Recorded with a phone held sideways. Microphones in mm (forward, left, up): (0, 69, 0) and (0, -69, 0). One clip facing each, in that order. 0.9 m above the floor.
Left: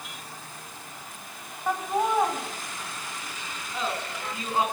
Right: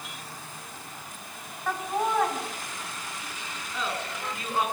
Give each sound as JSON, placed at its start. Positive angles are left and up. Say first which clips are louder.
{"t": 1.7, "sound": "laughter", "louder": "left 2 dB", "side_deg": 15, "distance_m": 6.0}